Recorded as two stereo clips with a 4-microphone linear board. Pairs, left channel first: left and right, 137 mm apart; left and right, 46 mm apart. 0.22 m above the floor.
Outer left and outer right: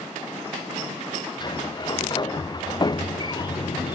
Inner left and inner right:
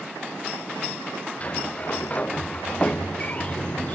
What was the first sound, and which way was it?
A sliding door, 30° left (ahead or behind).